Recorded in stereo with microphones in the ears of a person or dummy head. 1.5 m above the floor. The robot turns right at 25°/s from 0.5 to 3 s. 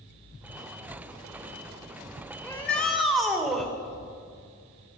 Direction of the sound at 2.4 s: 10° left (ahead or behind).